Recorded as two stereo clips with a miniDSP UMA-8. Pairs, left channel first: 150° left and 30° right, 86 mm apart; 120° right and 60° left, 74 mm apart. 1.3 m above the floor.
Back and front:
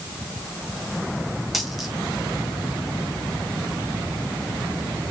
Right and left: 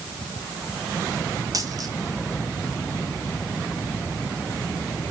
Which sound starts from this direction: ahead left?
A dropped coin, at 1.5 s.